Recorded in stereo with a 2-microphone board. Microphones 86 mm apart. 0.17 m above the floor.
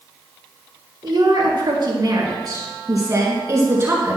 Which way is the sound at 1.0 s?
60° right (ahead or behind).